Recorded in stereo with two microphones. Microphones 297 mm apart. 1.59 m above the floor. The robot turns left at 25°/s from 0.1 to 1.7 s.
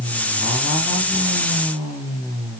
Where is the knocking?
I don't hear knocking.